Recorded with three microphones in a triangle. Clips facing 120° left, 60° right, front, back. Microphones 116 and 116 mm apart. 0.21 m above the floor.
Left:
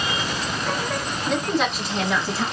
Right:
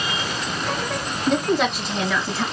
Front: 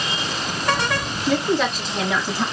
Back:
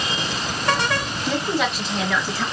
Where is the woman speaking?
150° right, 1.6 m; by 2.5 s 40° left, 1.6 m.